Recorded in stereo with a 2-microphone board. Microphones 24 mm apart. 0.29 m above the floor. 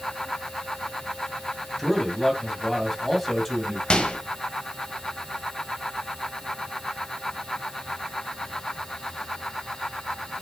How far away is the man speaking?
About 2 m.